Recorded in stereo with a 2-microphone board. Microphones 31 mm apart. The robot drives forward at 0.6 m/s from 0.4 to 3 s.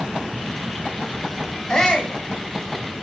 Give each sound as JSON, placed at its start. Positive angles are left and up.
{"t": 1.7, "sound": "a shout", "side_deg": 20, "distance_m": 2.5}